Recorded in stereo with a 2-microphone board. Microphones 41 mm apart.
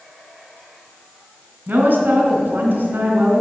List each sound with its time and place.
1.7 s a woman speaking: 50° right (ahead or behind), 2.5 m